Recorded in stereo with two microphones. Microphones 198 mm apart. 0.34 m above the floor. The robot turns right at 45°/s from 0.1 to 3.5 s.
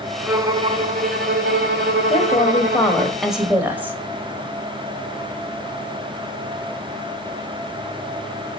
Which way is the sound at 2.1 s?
130° left.